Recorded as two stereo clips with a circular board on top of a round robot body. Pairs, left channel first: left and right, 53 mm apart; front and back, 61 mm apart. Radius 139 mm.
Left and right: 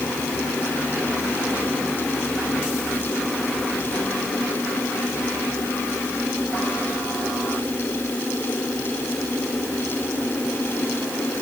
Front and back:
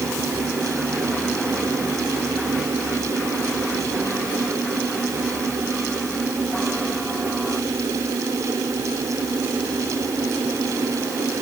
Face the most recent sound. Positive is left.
No sound to turn to.